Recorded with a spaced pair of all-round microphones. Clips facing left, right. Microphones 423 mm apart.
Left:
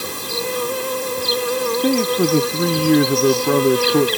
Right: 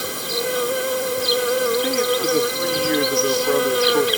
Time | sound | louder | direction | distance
0.0 | an insect | right 1 dB | 5° left (ahead or behind) | ?
1.8 | a man speaking | left 4 dB | 60° left (ahead or behind) | ?